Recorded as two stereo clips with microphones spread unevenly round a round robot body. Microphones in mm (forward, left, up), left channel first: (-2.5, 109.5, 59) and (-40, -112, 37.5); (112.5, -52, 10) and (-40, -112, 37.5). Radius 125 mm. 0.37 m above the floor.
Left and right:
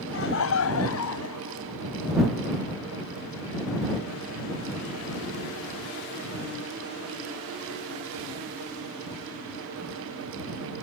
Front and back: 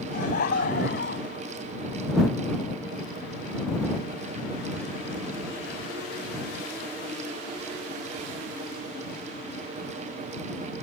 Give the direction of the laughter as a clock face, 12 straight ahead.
10 o'clock.